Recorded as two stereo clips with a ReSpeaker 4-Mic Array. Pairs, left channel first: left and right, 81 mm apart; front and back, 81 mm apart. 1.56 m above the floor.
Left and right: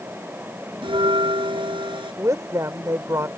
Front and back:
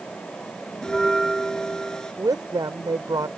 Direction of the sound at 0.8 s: 85° right.